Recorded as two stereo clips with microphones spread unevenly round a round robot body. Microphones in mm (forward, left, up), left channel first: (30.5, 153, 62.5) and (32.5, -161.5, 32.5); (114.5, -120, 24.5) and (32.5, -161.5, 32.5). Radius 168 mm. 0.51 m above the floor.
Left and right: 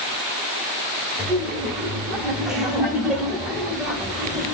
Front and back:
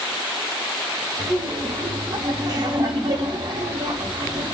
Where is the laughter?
170° right, 0.9 m.